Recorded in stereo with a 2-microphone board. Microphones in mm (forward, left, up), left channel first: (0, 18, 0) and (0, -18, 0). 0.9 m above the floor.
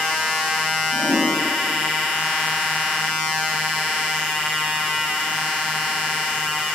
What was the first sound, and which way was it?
A whoosh, 65° right (ahead or behind).